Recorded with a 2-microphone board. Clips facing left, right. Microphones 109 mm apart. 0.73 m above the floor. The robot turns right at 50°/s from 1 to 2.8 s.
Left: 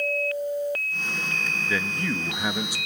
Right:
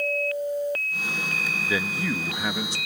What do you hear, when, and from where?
1.7 s a man speaking: 10° right (ahead or behind), 0.6 m; by 2.8 s 15° left (ahead or behind), 0.6 m